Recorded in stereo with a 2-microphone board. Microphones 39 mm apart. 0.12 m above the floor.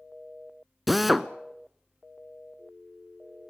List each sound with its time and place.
0.9 s a drill: centre (ahead or behind), 0.7 m